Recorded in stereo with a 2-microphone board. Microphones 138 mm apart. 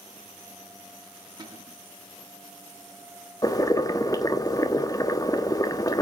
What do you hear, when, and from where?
1.4 s a cupboard door: 30° right (ahead or behind), 4.5 m
3.4 s boiling: 25° left (ahead or behind), 1.2 m